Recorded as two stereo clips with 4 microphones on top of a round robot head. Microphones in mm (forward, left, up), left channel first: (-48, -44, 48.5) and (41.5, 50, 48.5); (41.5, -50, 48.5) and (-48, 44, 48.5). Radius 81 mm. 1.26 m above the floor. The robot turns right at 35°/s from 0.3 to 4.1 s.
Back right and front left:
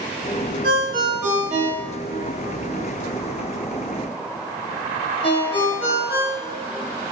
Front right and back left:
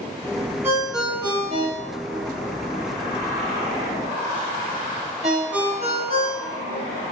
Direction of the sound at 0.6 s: 55° left.